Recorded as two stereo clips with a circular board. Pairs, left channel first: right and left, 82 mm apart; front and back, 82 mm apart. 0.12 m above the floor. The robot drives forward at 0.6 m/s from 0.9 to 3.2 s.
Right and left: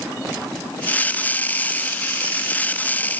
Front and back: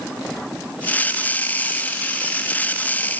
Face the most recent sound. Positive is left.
No sound to turn to.